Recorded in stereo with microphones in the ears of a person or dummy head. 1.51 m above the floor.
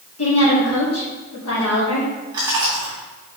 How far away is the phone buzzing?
No phone buzzing in this recording.